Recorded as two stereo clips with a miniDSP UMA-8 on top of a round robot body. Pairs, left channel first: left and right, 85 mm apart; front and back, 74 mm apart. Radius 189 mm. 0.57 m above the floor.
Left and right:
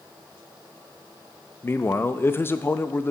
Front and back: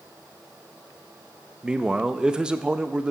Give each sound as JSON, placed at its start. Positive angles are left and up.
{"t": 1.6, "sound": "a man speaking", "azimuth_deg": 115, "distance_m": 0.7}